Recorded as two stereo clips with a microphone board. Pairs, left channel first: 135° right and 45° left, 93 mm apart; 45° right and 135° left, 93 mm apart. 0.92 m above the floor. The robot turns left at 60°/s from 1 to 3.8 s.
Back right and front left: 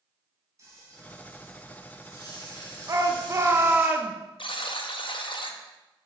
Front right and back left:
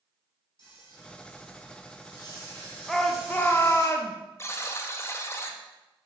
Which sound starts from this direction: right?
A buzzer, at 4.4 s.